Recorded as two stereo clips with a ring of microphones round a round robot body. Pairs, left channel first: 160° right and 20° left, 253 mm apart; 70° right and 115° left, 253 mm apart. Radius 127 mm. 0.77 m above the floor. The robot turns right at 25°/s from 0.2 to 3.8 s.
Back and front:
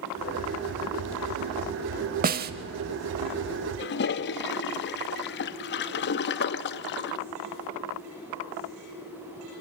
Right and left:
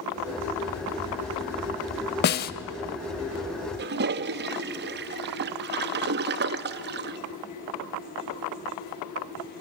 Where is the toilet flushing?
160° left, 0.7 m.